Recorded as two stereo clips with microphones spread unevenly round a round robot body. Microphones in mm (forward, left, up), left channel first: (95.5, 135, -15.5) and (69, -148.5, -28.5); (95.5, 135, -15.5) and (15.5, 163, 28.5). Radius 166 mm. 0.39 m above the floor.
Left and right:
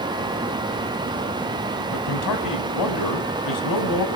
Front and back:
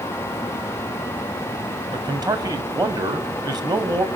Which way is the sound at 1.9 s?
105° left.